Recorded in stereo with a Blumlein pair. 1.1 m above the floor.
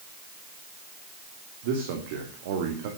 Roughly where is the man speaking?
Ahead right.